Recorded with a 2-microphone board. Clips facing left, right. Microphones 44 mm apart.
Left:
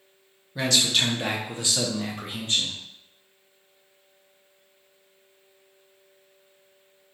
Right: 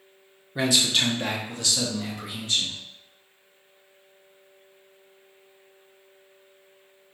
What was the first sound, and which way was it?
A man speaking, 20° right (ahead or behind).